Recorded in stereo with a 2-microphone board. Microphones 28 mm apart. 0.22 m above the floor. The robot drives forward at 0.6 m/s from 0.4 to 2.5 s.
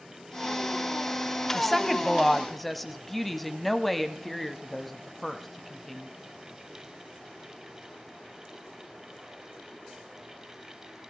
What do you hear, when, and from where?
1.5 s a woman speaking: 10° left (ahead or behind), 1.0 m; by 6.1 s 5° left (ahead or behind), 1.3 m